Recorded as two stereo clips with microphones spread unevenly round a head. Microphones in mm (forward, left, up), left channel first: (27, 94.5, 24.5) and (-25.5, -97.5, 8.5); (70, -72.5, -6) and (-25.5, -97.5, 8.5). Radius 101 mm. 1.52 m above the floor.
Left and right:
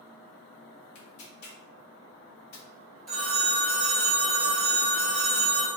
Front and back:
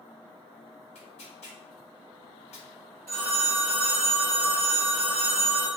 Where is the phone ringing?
165° left, 1.8 m.